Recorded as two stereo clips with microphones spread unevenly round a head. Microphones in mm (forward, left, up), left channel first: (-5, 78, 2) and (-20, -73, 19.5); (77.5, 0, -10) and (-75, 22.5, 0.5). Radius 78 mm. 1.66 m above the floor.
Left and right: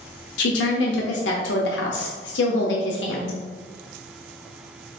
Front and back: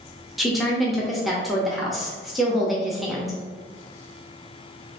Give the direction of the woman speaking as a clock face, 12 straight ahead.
9 o'clock.